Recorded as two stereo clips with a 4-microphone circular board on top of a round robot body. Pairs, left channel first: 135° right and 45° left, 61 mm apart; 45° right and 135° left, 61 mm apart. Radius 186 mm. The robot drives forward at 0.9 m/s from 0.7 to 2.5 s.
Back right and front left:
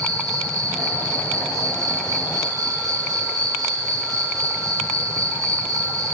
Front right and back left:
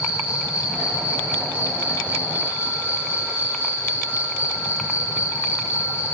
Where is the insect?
60° left, 9 m; by 6.1 s 70° left, 8.5 m.